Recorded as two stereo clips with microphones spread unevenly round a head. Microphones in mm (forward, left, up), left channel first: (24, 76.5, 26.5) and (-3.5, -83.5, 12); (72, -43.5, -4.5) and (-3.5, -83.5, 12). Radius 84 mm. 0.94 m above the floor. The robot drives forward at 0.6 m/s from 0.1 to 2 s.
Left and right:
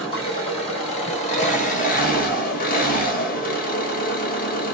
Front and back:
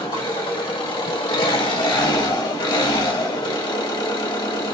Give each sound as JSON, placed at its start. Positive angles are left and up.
{"t": 0.0, "sound": "an engine running", "azimuth_deg": 20, "distance_m": 2.0}